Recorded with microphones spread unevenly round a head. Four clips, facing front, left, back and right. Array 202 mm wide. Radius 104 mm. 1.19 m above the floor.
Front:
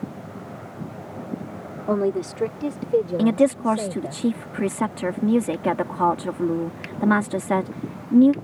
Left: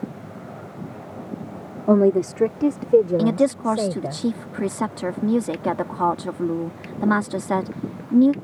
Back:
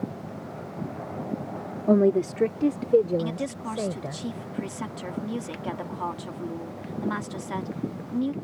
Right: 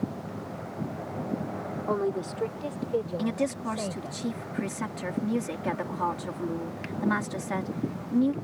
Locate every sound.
1.9 s a woman speaking: 110° left; by 4.2 s 105° left
3.2 s a woman speaking: 40° left